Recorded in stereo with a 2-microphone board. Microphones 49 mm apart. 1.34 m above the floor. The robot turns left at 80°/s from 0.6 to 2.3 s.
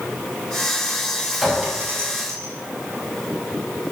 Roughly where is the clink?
Centre.